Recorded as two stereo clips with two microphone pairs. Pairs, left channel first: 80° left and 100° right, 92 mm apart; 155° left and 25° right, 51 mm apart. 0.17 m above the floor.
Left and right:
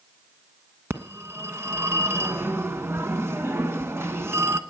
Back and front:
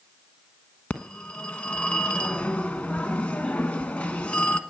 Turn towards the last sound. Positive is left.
turn(degrees=-150)